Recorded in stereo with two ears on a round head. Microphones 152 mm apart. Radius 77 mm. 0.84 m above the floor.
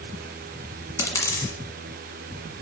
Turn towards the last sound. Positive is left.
turn(degrees=20)  # may be behind; listen again after turning